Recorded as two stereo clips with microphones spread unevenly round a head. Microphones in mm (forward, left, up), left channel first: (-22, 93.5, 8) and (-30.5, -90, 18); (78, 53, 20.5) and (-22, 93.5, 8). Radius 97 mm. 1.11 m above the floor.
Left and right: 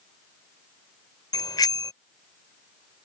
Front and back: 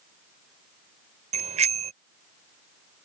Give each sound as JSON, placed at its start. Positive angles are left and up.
{"t": 1.3, "sound": "a bicycle bell", "azimuth_deg": 155}